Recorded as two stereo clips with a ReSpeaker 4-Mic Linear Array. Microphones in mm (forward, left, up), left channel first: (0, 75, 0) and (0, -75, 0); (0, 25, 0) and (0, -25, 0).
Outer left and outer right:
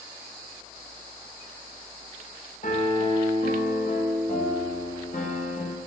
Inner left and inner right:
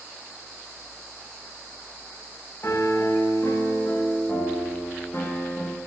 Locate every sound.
2.6 s a piano: 55° left (ahead or behind), 1.1 m